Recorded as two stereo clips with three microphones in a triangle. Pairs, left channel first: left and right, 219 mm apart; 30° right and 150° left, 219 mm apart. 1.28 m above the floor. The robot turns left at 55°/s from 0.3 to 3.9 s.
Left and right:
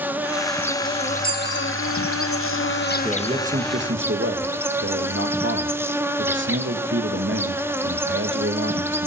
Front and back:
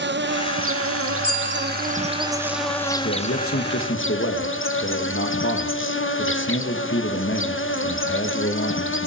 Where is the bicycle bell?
125° left, 9.5 m; by 1.7 s 100° left, 9.5 m.